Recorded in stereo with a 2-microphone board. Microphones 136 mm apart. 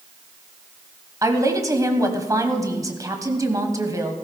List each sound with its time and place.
1.2 s a woman speaking: 25° right (ahead or behind), 1.2 m